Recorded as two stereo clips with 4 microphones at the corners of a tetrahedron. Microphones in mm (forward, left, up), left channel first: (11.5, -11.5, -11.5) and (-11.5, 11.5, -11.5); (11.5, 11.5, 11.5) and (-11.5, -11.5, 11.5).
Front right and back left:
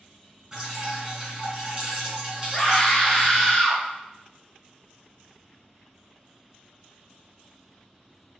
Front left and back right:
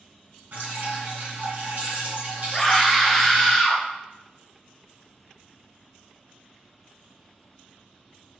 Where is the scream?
25° right, 1.1 m.